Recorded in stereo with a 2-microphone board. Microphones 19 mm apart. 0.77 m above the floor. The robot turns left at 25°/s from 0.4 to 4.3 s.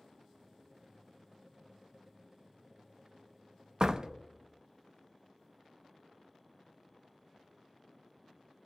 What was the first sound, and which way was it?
A door slam, 35° right (ahead or behind).